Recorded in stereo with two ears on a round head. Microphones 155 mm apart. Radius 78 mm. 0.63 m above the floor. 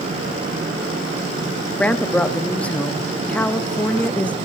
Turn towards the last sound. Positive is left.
turn(degrees=10)  # may be behind; listen again after turning